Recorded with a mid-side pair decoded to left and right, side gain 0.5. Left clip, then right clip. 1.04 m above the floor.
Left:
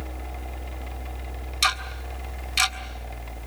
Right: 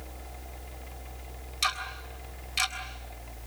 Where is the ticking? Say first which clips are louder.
Left 6 dB; 40° left, 3 m.